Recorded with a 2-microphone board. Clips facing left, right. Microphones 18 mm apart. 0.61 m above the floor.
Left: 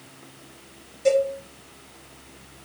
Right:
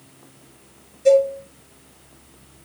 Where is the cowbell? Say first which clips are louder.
Right 5 dB; 30° left (ahead or behind), 1.3 m.